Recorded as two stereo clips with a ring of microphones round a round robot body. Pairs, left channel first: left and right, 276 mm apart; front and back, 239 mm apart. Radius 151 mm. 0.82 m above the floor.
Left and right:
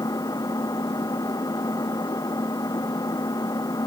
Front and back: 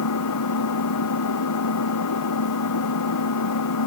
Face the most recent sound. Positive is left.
turn(degrees=10)